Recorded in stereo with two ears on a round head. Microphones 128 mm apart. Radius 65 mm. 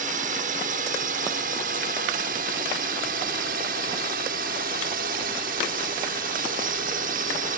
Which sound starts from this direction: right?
A drone, at 0.0 s.